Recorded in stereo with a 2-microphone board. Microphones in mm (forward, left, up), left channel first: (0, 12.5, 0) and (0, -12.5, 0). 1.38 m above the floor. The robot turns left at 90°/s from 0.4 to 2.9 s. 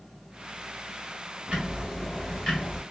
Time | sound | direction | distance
1.5 | ticking | 120° right | 1.6 m